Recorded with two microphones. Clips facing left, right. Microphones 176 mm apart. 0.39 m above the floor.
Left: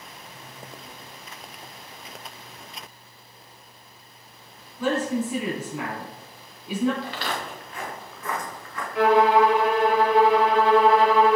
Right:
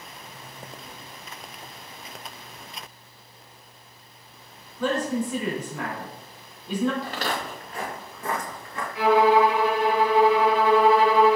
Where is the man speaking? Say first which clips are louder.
Left 1 dB; 10° left (ahead or behind), 3.5 m.